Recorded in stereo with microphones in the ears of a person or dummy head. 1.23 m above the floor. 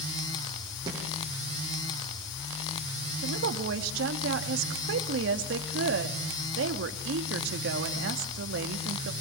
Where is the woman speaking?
75° right (ahead or behind), 2.0 m.